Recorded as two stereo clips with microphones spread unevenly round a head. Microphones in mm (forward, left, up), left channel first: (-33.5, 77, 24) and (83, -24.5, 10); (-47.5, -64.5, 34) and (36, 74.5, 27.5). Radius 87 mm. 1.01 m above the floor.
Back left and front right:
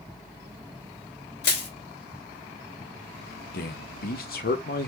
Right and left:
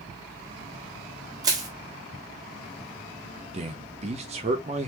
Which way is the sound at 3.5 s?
110° left.